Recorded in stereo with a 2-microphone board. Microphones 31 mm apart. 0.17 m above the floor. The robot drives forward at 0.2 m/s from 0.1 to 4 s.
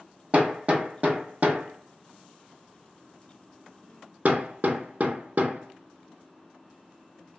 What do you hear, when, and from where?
0.3 s hammering: 40° right (ahead or behind), 0.7 m; by 7.4 s 60° right (ahead or behind), 0.6 m